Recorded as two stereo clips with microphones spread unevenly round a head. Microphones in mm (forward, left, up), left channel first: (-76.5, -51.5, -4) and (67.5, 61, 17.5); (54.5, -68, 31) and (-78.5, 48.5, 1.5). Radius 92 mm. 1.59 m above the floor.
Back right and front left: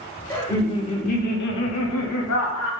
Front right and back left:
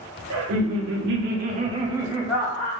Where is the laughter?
140° left, 0.8 m; by 2.7 s 120° right, 0.9 m.